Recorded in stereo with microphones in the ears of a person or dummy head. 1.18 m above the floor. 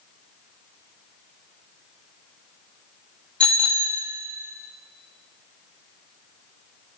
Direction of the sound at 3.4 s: Centre (ahead or behind).